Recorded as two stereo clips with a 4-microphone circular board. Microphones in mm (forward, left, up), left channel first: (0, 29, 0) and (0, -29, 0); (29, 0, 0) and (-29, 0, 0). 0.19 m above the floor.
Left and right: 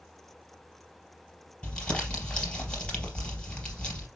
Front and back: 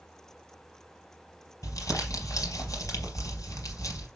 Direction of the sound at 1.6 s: 20° left.